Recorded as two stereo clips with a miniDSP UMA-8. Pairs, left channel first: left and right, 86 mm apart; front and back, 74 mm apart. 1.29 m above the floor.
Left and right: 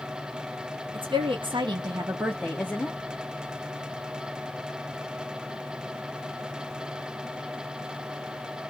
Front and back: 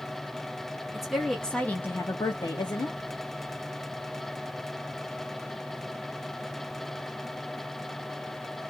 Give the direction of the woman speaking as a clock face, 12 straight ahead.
3 o'clock.